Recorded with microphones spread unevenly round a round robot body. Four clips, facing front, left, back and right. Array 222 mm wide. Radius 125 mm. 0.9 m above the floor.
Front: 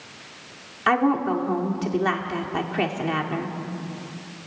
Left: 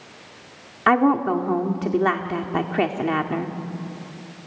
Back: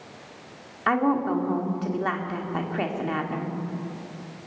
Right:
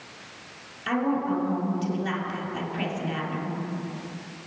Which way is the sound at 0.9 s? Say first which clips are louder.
Left 8 dB, front 2 dB; 75° left.